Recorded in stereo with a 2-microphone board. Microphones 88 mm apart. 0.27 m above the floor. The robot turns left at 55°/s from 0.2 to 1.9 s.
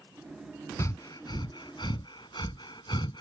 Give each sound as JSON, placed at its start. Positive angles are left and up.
{"t": 0.8, "sound": "breathing", "side_deg": 35}